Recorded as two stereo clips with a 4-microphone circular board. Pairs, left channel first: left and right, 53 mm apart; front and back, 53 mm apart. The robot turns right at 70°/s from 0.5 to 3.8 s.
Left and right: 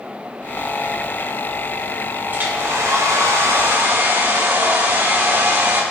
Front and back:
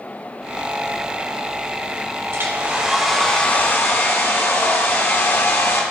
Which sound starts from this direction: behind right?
A hair dryer, at 2.3 s.